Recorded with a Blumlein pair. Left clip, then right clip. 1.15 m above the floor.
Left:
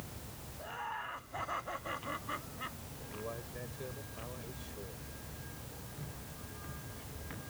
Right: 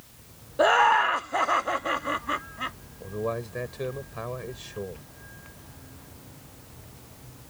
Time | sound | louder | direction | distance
0.6 | laughter | right 23 dB | 45° right | ?
3.0 | a man speaking | right 14 dB | 35° right | ?